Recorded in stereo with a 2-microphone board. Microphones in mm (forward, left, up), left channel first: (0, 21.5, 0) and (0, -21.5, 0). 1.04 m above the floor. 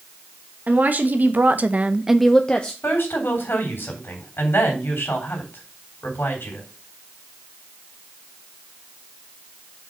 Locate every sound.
0.7 s a woman speaking: 45° right (ahead or behind), 1.7 m; by 2.7 s 25° left (ahead or behind), 0.9 m
2.8 s a woman speaking: 60° left (ahead or behind), 3.5 m